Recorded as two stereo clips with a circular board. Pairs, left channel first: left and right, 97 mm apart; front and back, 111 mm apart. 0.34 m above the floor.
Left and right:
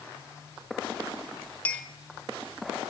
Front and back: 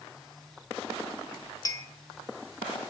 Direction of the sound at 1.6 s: 25° left.